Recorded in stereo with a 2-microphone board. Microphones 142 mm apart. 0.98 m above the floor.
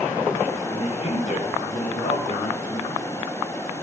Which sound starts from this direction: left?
A man speaking, at 0.6 s.